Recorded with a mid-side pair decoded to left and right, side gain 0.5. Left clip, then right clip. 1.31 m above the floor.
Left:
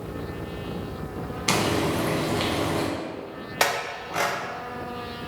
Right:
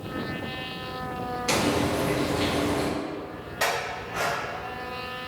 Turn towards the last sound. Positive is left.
turn(degrees=70)